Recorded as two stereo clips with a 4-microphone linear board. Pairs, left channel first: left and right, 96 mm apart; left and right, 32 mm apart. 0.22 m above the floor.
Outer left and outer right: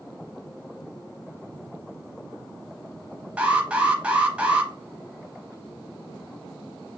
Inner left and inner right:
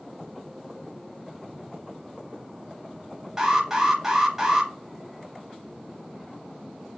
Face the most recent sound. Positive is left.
turn(degrees=-15)  # may be behind; listen again after turning